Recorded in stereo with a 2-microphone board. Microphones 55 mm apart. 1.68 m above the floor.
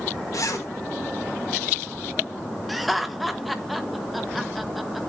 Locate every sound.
0.3 s a zipper: 80° left, 2.5 m
2.7 s laughter: 5° right (ahead or behind), 1.5 m